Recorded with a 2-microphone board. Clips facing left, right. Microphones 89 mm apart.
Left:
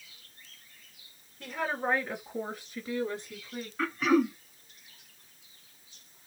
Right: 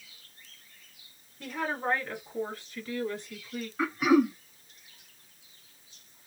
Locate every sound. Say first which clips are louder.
1.4 s a woman speaking: even; centre (ahead or behind), 1.7 m; by 3.7 s 35° left (ahead or behind), 2 m
3.8 s throat clearing: right 2 dB; 10° right (ahead or behind), 0.5 m